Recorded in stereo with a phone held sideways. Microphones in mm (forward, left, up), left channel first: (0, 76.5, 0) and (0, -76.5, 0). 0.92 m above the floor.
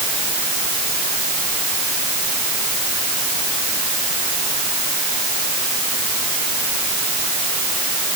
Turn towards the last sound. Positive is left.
No sound to turn to.